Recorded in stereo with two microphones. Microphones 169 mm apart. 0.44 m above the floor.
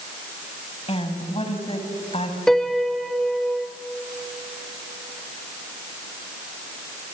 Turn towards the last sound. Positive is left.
turn(degrees=0)  # may be behind; listen again after turning